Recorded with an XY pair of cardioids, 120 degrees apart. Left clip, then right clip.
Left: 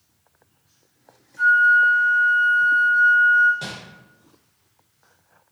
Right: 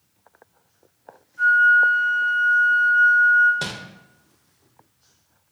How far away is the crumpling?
About 0.6 m.